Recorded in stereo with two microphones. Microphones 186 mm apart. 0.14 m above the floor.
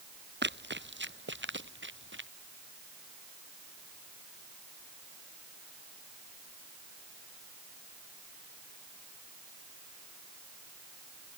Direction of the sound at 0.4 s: 70° right (ahead or behind).